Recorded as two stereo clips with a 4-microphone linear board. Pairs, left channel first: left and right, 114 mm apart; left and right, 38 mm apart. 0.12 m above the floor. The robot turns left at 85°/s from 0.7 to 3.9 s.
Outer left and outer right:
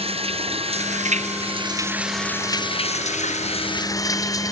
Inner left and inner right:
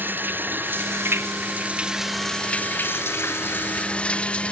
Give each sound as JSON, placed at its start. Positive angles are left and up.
{"t": 0.0, "sound": "running water", "azimuth_deg": -55}